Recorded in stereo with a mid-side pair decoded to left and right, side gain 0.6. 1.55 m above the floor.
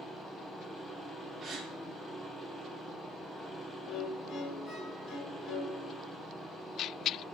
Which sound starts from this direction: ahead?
A machine running, at 0.0 s.